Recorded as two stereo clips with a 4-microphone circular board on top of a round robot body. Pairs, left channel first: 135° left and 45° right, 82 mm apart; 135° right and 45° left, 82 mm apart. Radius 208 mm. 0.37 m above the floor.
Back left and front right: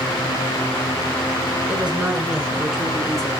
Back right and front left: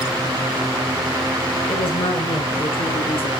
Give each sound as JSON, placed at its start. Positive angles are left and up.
{"t": 1.7, "sound": "a woman speaking", "azimuth_deg": -120, "distance_m": 6.0}